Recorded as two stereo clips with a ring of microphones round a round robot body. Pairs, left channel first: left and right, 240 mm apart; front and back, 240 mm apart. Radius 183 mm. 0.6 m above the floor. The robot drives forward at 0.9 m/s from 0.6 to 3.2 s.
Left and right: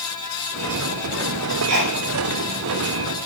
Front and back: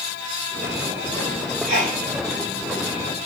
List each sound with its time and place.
1.7 s a sneeze: 115° right, 6 m; by 2.0 s 120° right, 6 m